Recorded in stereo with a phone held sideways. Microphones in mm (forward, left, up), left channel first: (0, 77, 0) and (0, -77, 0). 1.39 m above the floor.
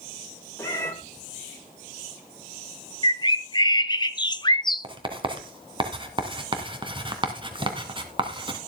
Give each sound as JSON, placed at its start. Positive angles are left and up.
{"t": 0.6, "sound": "a cat meowing", "side_deg": 20, "distance_m": 3.0}
{"t": 3.0, "sound": "a bird", "side_deg": 30, "distance_m": 0.6}
{"t": 4.8, "sound": "writing", "side_deg": -35, "distance_m": 2.0}